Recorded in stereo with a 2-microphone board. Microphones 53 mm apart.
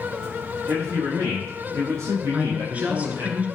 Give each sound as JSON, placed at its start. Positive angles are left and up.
{"t": 0.7, "sound": "a man speaking", "side_deg": -65, "distance_m": 5.5}
{"t": 2.3, "sound": "a woman speaking", "side_deg": -30, "distance_m": 1.7}